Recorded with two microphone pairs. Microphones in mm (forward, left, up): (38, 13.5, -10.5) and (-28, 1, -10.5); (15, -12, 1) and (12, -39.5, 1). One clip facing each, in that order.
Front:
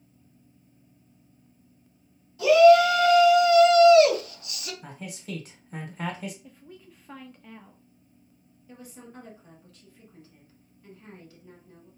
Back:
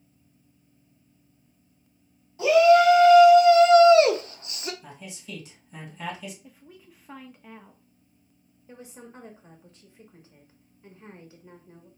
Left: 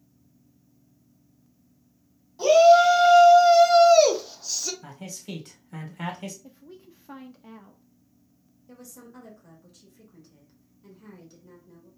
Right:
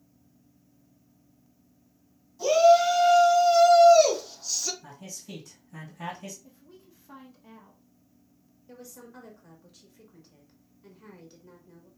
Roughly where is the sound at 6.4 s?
Left.